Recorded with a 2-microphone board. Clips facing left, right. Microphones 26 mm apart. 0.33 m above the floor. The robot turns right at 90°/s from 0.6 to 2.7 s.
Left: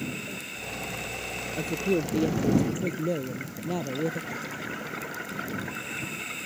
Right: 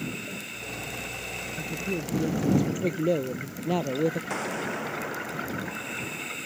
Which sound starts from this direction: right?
An explosion, at 4.3 s.